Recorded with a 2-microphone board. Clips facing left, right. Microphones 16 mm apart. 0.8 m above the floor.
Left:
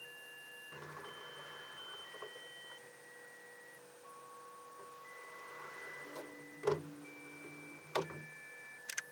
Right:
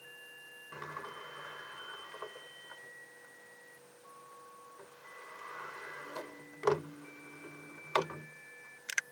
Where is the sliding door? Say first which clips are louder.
Right 8 dB; 75° right (ahead or behind).